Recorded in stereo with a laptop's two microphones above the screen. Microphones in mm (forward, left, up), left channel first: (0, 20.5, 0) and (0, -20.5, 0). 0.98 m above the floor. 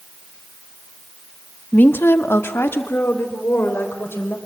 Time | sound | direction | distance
1.7 | a woman speaking | 50° left (ahead or behind) | 1.5 m